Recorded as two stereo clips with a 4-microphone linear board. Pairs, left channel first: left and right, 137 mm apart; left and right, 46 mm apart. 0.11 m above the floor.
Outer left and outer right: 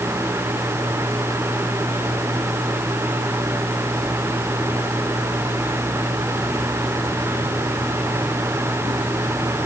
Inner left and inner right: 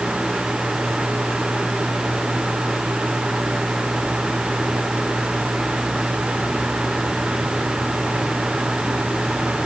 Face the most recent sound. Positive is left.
No sound to turn to.